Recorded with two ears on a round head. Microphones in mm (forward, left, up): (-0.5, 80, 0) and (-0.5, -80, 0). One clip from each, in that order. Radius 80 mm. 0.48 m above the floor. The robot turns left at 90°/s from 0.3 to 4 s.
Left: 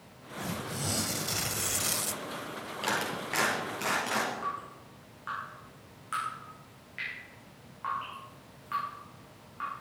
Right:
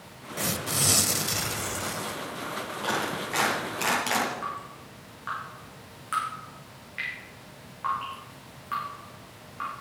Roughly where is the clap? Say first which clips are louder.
Right 2 dB; left.